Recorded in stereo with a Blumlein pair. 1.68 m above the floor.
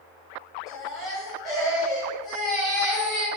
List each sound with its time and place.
0.7 s a baby crying: 25° left, 1.8 m